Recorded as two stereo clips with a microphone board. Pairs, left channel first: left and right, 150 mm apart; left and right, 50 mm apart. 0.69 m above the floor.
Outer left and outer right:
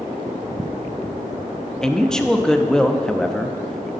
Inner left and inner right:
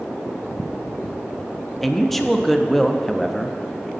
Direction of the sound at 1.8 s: 5° left (ahead or behind).